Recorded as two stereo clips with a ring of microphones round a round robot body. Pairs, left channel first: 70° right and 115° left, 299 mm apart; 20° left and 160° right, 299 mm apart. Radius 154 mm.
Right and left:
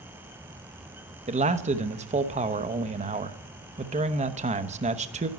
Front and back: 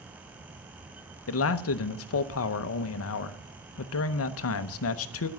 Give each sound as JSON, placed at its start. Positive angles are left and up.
{"t": 1.3, "sound": "a man speaking", "azimuth_deg": 50, "distance_m": 0.8}